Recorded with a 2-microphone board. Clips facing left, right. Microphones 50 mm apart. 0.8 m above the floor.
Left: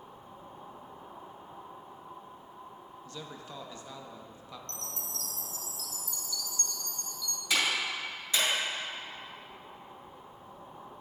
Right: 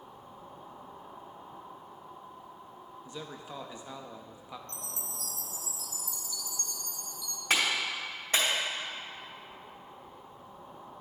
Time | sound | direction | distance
3.0 | a man speaking | 15° right (ahead or behind) | 0.6 m
4.7 | a chime | 15° right (ahead or behind) | 0.5 m
7.5 | a clap | 40° right (ahead or behind) | 2.5 m